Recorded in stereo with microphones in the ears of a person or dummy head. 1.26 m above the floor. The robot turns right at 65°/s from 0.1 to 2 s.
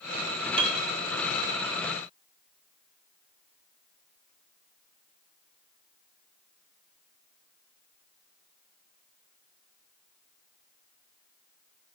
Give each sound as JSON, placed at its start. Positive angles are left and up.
{"t": 0.6, "sound": "a piano", "side_deg": -30, "distance_m": 1.2}